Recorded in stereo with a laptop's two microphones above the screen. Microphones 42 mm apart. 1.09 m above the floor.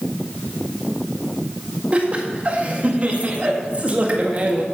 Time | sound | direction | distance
1.9 | laughter | 30° right (ahead or behind) | 1.8 m